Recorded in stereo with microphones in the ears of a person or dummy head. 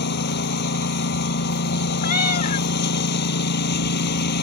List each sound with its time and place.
0.0 s a lawn mower: 55° left (ahead or behind)
2.0 s a cat meowing: 45° left (ahead or behind)